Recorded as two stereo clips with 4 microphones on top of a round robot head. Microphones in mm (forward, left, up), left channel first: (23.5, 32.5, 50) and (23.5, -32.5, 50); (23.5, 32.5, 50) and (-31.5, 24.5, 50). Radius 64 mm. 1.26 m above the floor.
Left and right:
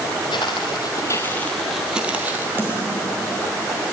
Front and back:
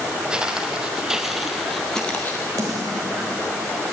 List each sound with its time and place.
0.3 s footsteps: 120° left, 1.7 m; by 2.5 s 55° right, 1.4 m
2.6 s a snare drum: 155° right, 3.5 m